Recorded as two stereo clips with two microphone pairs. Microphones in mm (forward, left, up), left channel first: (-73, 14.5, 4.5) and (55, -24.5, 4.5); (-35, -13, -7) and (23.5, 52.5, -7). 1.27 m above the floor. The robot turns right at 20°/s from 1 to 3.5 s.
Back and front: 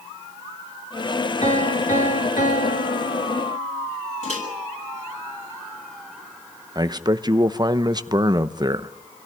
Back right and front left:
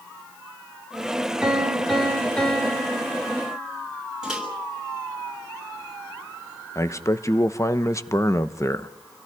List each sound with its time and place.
1.4 s a piano: 130° left, 5.5 m; by 3.7 s 170° left, 5.5 m
4.2 s a microwave: 135° left, 6.5 m
6.8 s a man speaking: 75° right, 0.9 m